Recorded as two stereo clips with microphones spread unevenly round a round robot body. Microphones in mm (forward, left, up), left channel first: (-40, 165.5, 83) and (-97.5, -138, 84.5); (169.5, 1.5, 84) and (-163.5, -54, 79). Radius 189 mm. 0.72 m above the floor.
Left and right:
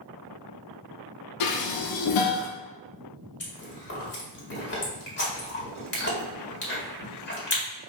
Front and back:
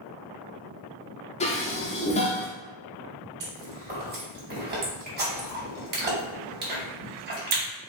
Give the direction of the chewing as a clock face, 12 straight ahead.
8 o'clock.